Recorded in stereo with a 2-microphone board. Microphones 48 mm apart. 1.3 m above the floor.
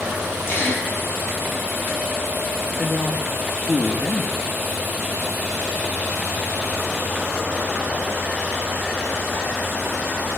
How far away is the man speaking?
About 2.5 m.